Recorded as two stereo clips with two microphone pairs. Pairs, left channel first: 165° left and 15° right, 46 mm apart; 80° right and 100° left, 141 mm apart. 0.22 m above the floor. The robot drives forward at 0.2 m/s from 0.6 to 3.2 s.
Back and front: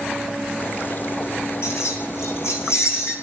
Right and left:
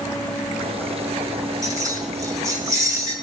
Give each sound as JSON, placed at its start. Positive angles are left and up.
{"t": 1.6, "sound": "keys jangling", "azimuth_deg": 165, "distance_m": 7.5}